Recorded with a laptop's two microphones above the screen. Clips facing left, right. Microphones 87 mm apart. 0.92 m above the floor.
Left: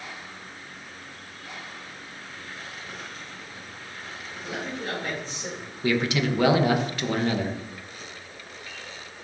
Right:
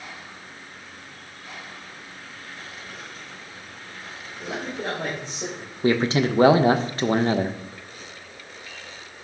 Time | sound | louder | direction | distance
4.4 | a man speaking | right 3 dB | 80° right | 4.5 m
5.8 | a man speaking | right 4 dB | 35° right (ahead or behind) | 0.8 m